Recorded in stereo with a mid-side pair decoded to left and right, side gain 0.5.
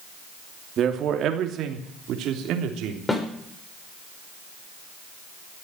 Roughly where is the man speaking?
Ahead right.